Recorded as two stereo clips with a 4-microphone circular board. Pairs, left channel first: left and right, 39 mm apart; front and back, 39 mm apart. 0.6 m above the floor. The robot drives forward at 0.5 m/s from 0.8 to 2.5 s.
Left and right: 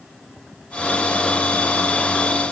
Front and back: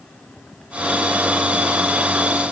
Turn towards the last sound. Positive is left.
No sound to turn to.